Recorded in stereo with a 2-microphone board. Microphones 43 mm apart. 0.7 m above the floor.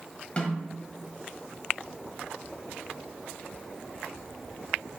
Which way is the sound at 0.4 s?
30° left (ahead or behind).